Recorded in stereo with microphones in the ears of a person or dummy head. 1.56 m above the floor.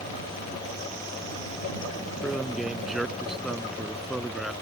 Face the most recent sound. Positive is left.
turn(degrees=0)  # may be behind; listen again after turning